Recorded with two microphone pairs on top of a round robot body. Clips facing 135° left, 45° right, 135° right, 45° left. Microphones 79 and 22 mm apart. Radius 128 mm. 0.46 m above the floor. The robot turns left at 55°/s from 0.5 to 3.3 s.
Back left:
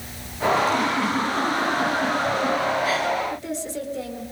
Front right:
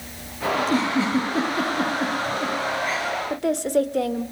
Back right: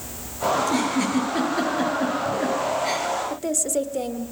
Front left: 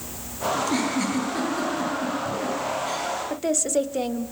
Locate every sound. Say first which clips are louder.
0.6 s a giggle: front right 3 dB, back right 1 dB; 15° right, 9.5 m; by 3.1 s 155° right, 9.5 m
3.3 s a woman speaking: front right 8 dB, front left 1 dB; 25° right, 1.7 m